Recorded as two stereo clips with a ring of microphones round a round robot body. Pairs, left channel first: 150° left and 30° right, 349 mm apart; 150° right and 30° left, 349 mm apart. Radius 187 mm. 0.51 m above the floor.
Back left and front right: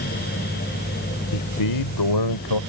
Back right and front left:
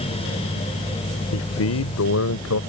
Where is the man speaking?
165° left.